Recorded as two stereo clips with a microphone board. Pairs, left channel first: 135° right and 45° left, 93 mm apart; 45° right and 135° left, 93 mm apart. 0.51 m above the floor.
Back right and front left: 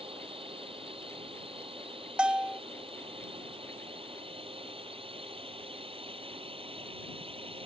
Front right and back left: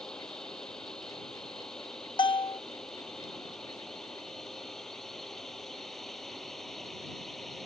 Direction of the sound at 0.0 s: 40° left.